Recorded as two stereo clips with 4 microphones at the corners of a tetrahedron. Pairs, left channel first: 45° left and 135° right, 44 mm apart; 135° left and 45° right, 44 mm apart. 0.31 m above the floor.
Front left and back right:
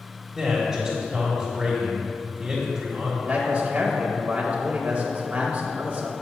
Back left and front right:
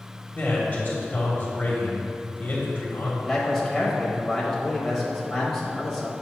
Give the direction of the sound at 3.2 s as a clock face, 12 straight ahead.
5 o'clock.